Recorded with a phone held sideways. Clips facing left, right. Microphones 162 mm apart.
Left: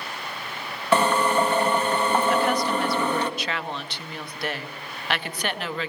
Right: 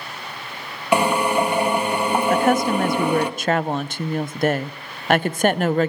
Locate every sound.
0.9 s a drill: 15° right (ahead or behind), 1.5 m
2.3 s a woman speaking: 45° right (ahead or behind), 0.6 m